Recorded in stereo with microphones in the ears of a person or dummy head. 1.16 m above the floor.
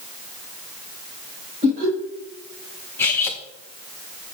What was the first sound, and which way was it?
Laughter, 40° right (ahead or behind).